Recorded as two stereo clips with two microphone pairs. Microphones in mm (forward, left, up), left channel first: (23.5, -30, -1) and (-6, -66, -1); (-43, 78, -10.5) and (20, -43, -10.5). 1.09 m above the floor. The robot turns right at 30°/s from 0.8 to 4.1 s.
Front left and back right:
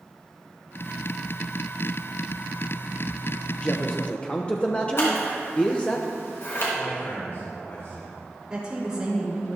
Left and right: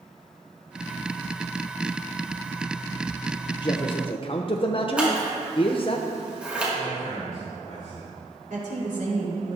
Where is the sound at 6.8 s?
85° left, 3.5 m.